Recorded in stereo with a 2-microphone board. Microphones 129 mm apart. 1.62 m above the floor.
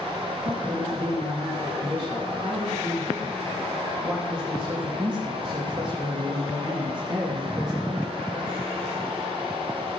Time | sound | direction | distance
0.4 | a man speaking | 40° right (ahead or behind) | 3 m